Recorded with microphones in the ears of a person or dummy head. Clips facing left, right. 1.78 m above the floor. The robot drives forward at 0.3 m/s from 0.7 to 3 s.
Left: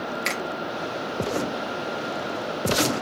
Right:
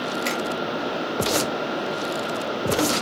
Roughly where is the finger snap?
Left.